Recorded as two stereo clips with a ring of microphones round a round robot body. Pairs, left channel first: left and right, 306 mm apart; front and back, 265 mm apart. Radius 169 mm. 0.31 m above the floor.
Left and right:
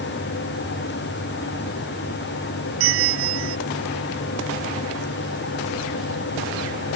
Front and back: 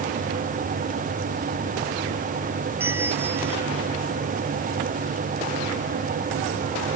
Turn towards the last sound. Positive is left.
turn(degrees=-95)